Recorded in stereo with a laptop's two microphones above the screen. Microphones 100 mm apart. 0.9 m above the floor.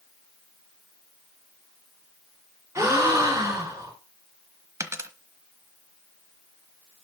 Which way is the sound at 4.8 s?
25° right (ahead or behind).